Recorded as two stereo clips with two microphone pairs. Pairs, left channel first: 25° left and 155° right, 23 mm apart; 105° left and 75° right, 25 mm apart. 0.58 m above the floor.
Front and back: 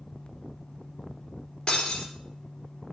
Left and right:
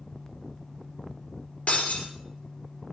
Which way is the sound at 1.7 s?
85° left.